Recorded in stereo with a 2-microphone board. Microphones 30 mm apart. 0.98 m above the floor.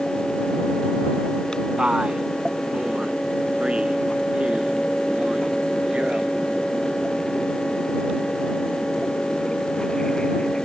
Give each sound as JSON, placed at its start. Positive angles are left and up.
{"t": 1.8, "sound": "a man speaking", "side_deg": -40}